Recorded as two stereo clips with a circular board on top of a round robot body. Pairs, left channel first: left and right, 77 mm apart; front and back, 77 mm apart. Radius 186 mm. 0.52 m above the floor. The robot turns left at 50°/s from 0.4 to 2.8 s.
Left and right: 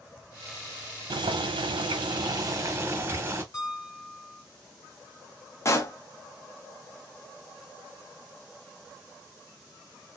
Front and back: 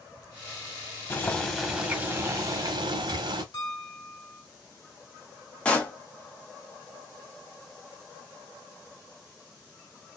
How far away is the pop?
About 1.3 m.